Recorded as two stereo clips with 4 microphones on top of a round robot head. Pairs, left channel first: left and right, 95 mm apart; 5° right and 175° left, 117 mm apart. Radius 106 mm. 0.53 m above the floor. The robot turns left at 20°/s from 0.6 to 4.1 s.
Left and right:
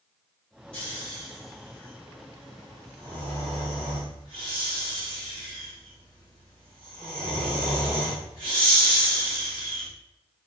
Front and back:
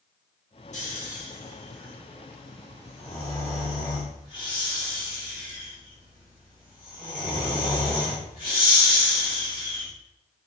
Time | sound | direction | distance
0.7 | snoring | 10° left | 1.7 m